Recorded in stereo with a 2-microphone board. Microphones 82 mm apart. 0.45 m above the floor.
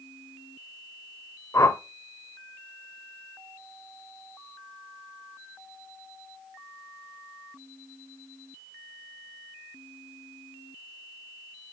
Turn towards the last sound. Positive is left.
turn(degrees=40)  # may be behind; listen again after turning